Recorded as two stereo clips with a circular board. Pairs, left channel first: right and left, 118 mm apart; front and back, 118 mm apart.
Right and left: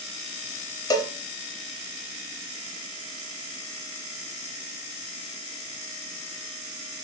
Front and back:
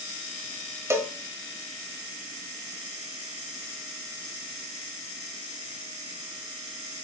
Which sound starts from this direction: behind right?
A cowbell, at 0.9 s.